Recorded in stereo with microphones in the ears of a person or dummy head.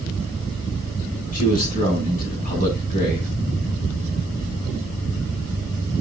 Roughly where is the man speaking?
Left.